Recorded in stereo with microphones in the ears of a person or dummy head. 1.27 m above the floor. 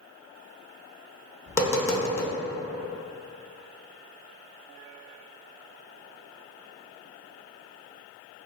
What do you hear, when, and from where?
1.5 s tapping: 15° left (ahead or behind), 0.6 m